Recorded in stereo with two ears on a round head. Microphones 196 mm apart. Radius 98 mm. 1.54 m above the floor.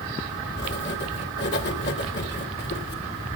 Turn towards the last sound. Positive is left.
turn(degrees=50)  # may be behind; listen again after turning